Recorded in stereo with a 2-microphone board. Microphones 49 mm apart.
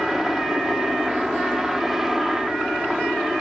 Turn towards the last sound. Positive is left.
turn(degrees=-5)  # may be behind; listen again after turning